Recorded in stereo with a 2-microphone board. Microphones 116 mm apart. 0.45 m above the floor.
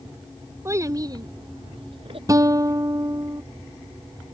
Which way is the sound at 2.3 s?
30° right (ahead or behind).